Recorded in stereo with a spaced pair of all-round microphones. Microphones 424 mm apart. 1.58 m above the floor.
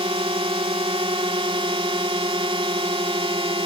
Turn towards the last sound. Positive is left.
turn(degrees=-10)  # may be behind; listen again after turning